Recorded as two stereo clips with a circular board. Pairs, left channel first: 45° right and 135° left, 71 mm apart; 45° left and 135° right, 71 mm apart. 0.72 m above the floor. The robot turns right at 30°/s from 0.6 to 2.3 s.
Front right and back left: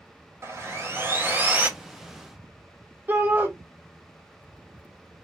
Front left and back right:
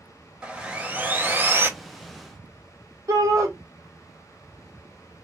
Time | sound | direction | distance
0.4 | sawing | 160° left | 0.7 m
3.1 | a shout | 165° right | 2 m